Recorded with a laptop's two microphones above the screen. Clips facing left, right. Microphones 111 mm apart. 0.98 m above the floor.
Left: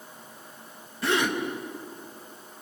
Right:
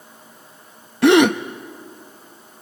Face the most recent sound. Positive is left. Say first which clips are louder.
# right 13 dB
turn(degrees=-80)